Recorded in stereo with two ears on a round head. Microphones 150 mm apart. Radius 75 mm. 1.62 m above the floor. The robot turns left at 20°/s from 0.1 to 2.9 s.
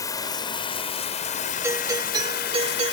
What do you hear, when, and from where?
0.0 s running water: 160° left; by 2.9 s 100° left
1.6 s a doorbell: 15° right (ahead or behind); by 2.9 s 40° right (ahead or behind)